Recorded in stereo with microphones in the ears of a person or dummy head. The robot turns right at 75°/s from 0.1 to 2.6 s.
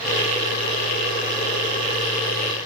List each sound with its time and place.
Only background noise.